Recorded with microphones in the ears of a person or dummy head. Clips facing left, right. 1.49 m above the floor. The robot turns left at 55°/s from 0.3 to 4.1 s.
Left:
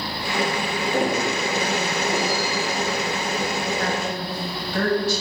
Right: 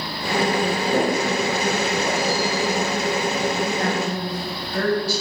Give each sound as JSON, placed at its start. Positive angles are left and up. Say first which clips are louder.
{"t": 0.9, "sound": "footsteps", "louder": "right 1 dB", "side_deg": -20, "distance_m": 1.5}
{"t": 3.8, "sound": "a woman speaking", "louder": "right 2 dB", "side_deg": -10, "distance_m": 2.0}